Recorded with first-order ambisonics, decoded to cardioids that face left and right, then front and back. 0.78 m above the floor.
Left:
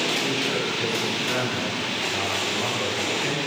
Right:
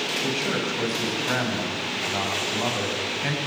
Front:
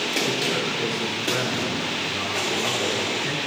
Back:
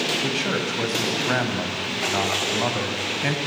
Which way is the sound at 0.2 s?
160° right.